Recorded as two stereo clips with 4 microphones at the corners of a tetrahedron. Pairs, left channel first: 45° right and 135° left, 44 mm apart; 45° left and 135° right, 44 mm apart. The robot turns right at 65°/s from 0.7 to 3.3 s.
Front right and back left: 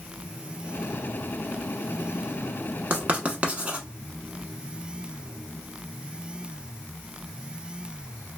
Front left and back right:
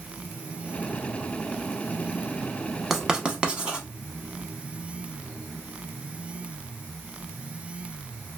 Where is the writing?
145° left, 0.6 m; by 3.9 s 170° left, 0.6 m.